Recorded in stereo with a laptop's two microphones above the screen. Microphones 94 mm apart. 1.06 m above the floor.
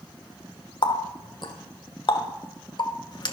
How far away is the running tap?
About 0.9 m.